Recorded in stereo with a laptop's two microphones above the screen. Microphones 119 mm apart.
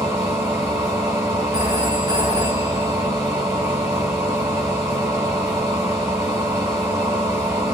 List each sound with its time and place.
0.0 s a machine running: 30° right (ahead or behind), 1.4 m
1.5 s a phone ringing: 30° right (ahead or behind), 1.1 m